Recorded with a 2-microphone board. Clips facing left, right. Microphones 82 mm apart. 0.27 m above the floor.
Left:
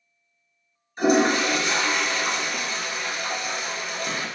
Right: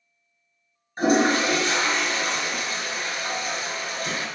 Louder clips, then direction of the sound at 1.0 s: Even; 45° right (ahead or behind).